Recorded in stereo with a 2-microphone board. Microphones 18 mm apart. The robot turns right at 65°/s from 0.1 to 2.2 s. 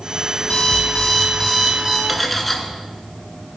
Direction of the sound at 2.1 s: Centre (ahead or behind).